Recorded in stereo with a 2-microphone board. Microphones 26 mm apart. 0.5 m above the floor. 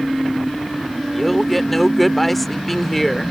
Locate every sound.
1.1 s a man speaking: 5° left (ahead or behind)